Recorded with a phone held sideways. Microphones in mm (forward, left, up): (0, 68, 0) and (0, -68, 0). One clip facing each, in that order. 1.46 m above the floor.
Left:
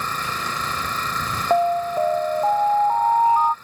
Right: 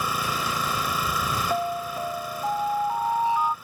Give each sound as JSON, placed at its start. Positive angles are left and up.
{"t": 0.0, "sound": "an engine running", "side_deg": -10}
{"t": 1.5, "sound": "an alarm", "side_deg": 40}